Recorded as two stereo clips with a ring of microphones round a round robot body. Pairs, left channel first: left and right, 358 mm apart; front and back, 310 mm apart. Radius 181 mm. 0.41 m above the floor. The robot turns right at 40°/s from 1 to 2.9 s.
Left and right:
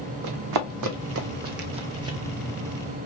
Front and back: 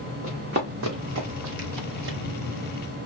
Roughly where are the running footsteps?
Right.